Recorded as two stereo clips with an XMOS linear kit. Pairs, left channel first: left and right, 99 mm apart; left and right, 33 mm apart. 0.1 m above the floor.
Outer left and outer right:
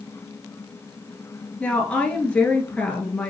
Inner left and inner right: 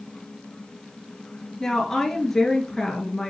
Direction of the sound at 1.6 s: 10° left (ahead or behind).